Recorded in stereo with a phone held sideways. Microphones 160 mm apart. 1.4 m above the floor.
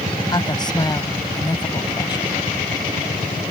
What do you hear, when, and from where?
0.3 s a woman speaking: 25° left (ahead or behind)